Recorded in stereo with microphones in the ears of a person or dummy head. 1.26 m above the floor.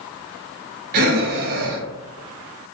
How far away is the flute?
I don't hear a flute.